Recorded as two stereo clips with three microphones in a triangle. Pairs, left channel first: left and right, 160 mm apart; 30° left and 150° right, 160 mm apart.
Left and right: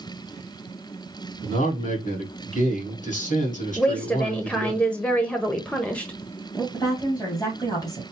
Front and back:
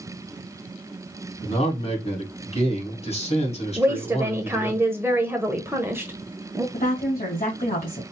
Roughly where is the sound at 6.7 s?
Ahead left.